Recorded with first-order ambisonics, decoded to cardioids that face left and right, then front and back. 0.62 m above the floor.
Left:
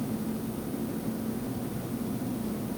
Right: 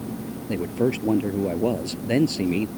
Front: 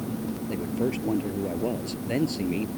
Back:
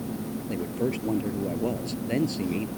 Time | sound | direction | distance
0.5 | a man speaking | 90° right | ?